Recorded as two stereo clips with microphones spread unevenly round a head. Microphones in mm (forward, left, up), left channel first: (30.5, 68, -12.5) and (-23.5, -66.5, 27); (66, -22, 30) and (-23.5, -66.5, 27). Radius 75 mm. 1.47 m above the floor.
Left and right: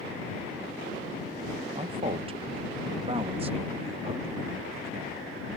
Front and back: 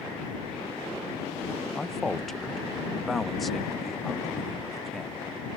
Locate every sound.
1.8 s a man speaking: 60° right; by 5.5 s 65° right